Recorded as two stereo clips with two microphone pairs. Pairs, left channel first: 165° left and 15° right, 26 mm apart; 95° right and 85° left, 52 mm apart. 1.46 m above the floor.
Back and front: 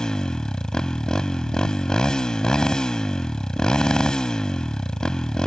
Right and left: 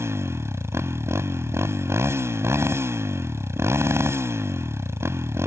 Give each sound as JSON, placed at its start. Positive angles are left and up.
{"t": 0.0, "sound": "a motorcycle", "azimuth_deg": 100}